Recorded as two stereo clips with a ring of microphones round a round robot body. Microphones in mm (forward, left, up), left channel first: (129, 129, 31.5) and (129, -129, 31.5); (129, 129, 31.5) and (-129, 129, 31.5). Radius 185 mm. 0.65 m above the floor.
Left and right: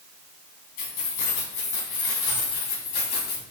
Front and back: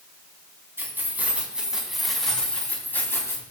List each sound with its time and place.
0.8 s keys jangling: 100° left, 4.5 m; by 3.4 s 80° left, 4 m